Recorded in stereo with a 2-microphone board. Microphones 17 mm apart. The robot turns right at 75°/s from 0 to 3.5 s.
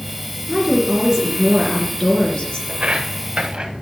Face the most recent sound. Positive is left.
turn(degrees=-65)  # may be behind; listen again after turning